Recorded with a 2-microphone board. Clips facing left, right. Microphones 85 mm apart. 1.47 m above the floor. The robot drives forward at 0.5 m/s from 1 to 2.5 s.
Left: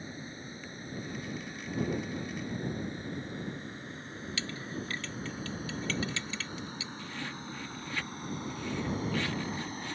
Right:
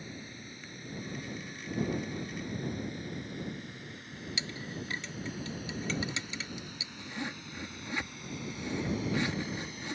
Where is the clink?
20° right (ahead or behind).